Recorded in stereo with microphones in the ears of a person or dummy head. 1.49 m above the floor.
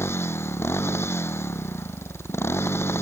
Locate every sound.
0.0 s a motorcycle: 10° left (ahead or behind)